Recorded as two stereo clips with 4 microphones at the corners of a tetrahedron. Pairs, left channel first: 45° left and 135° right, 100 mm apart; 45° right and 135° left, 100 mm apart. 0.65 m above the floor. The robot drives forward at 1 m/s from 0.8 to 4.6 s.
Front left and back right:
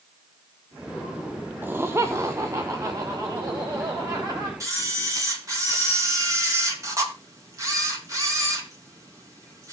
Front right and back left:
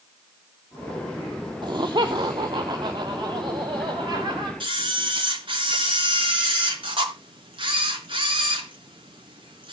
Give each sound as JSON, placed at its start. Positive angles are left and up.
{"t": 1.6, "sound": "laughter", "azimuth_deg": 160, "distance_m": 1.0}
{"t": 4.6, "sound": "a camera shutter", "azimuth_deg": 170, "distance_m": 4.0}